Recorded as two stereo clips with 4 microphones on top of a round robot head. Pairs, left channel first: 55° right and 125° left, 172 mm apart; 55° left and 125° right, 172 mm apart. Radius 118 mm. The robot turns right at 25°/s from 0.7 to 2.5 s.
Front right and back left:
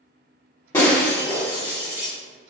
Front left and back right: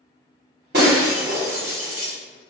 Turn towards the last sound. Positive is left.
turn(degrees=-80)